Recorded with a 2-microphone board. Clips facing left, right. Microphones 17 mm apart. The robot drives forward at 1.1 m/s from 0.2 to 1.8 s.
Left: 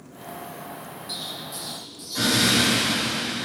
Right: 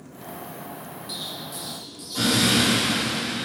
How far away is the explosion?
About 3 m.